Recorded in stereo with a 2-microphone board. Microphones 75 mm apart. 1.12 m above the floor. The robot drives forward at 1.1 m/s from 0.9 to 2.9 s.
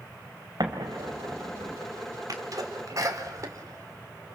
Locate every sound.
0.6 s an explosion: 65° right (ahead or behind), 3 m; by 1.8 s 50° right (ahead or behind), 3.5 m
2.3 s a sneeze: 55° right (ahead or behind), 3.5 m; by 4.4 s 50° right (ahead or behind), 4 m